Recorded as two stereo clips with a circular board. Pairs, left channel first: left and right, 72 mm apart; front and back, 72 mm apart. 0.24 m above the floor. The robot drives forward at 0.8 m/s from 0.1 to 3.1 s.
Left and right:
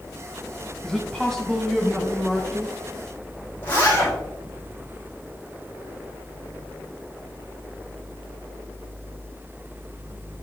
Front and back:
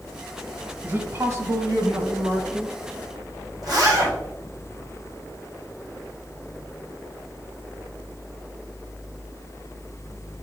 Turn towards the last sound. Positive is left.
turn(degrees=150)